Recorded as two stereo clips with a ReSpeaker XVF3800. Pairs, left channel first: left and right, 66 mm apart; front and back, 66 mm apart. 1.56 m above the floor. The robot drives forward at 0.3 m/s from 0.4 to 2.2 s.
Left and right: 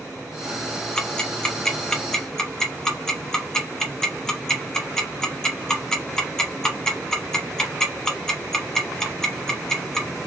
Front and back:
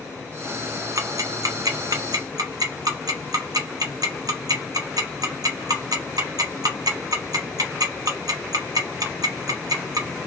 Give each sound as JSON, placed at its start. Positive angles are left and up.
{"t": 1.0, "sound": "ticking", "azimuth_deg": 165, "distance_m": 0.5}